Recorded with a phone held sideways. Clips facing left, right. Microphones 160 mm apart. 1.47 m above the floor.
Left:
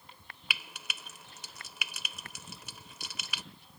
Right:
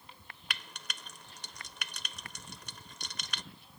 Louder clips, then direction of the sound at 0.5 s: Left 1 dB; 5° left (ahead or behind).